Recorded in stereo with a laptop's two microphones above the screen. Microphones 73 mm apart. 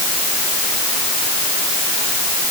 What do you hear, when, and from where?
Only background noise.